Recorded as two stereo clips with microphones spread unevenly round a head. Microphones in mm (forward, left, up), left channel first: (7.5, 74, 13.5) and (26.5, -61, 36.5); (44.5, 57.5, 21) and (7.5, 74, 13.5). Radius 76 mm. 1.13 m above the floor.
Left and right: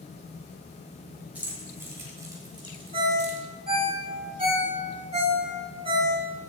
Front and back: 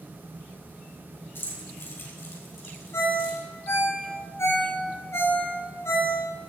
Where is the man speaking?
I don't hear a man speaking.